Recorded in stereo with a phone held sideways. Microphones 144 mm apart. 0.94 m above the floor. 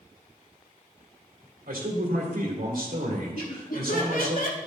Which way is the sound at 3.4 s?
75° left (ahead or behind).